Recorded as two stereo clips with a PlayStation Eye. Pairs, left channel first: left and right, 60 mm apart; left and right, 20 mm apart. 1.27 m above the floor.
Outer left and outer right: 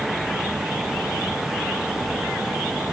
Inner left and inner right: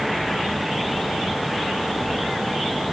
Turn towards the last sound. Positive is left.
No sound to turn to.